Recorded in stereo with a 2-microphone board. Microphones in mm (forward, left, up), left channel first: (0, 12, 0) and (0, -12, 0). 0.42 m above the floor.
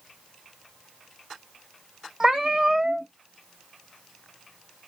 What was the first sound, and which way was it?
A cat meowing, 15° right (ahead or behind).